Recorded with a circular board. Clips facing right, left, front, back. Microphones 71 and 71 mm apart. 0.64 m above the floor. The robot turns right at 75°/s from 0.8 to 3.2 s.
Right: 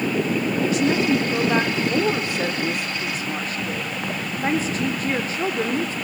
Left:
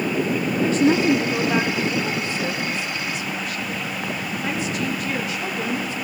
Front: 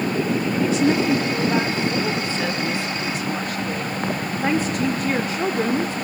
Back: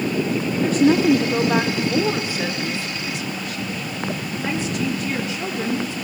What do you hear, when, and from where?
0.6 s a woman speaking: 140° left, 1.6 m; by 5.9 s 40° right, 1.6 m